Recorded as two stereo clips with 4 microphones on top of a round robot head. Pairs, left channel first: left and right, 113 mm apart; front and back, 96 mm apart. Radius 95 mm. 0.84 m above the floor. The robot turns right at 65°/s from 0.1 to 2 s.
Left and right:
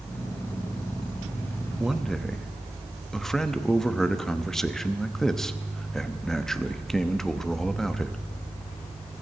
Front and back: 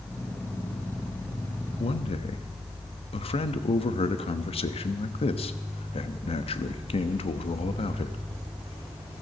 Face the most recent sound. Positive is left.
turn(degrees=5)